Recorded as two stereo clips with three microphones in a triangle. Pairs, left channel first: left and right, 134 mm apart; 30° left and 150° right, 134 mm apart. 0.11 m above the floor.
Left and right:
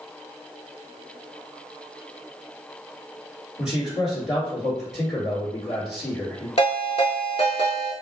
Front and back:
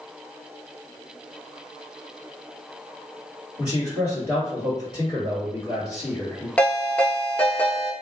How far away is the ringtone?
About 0.7 m.